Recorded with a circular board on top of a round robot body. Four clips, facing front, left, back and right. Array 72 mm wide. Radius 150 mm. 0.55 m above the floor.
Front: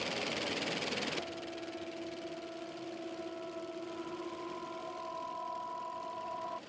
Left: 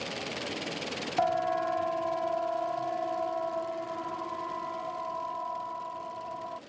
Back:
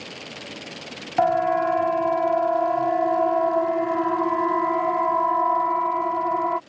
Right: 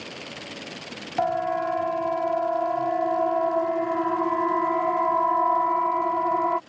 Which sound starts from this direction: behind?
A siren, at 1.2 s.